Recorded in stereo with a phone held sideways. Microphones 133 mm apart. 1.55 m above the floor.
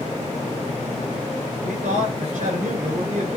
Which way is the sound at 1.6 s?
75° right (ahead or behind).